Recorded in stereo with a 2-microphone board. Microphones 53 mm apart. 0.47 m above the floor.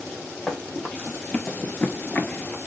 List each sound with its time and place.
0.5 s running footsteps: 10° left (ahead or behind), 1.1 m; by 2.6 s 25° left (ahead or behind), 0.6 m